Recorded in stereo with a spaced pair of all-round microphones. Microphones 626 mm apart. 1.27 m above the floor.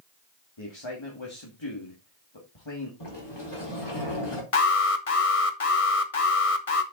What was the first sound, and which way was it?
A man speaking, 45° left (ahead or behind).